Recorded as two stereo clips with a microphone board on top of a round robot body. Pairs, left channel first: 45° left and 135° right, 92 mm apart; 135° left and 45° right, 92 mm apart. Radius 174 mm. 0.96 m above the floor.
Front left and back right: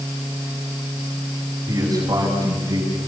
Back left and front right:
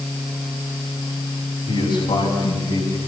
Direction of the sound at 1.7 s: 170° left.